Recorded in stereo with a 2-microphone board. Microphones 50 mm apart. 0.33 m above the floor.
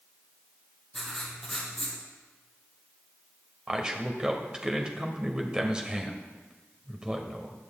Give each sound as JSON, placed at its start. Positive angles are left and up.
{"t": 0.9, "sound": "writing", "side_deg": 10, "distance_m": 4.5}
{"t": 3.7, "sound": "a man speaking", "side_deg": -20, "distance_m": 1.5}